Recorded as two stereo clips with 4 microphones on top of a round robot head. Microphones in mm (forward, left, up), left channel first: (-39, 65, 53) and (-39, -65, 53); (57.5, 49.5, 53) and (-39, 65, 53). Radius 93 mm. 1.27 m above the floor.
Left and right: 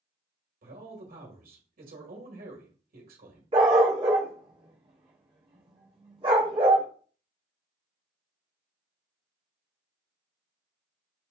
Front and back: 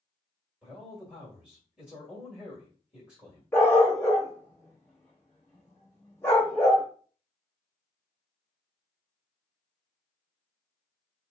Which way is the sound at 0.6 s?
105° right.